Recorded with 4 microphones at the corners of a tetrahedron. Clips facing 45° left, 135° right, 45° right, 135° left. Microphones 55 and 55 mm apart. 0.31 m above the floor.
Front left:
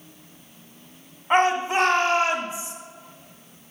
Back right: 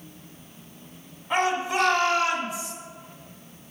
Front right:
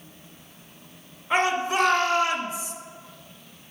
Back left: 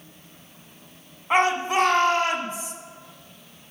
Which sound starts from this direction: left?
A shout, at 1.3 s.